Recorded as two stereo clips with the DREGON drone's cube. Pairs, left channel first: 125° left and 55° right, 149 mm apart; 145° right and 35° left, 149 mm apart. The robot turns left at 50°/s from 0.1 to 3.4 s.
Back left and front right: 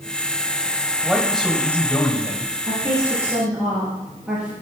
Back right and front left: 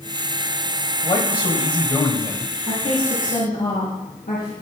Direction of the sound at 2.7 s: 100° right.